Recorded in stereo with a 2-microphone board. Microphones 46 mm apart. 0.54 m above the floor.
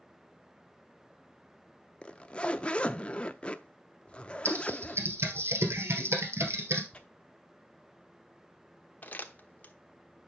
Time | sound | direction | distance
2.0 | a zipper | 25° left (ahead or behind) | 0.5 m
4.5 | typing on a keyboard | 70° right (ahead or behind) | 2.0 m
6.9 | tearing paper | 25° left (ahead or behind) | 1.1 m
9.0 | crumpling | 35° left (ahead or behind) | 1.0 m